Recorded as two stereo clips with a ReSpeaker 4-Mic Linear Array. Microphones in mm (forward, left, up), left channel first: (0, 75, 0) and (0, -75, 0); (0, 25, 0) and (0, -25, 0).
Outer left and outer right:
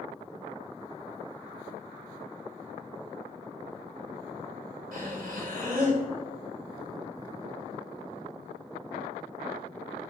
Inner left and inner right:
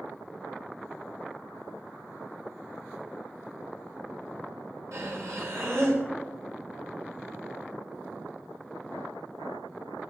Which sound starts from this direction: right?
Breathing, at 4.9 s.